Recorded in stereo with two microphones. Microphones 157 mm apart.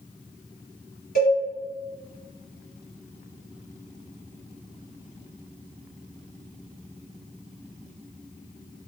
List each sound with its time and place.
1.1 s a cowbell: 65° left (ahead or behind), 1.4 m